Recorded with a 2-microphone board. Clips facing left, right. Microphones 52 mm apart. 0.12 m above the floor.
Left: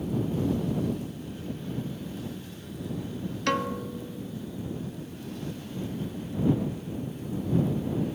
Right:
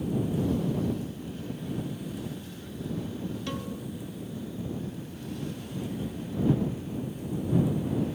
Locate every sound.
3.5 s a piano: 70° left (ahead or behind)